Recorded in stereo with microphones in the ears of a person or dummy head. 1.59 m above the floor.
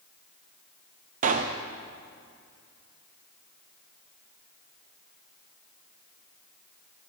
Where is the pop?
40° right (ahead or behind), 0.6 m.